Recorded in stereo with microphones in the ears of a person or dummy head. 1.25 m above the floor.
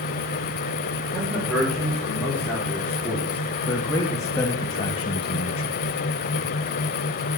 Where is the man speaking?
5° left (ahead or behind), 5.5 m; by 5.7 s 35° left (ahead or behind), 1.3 m.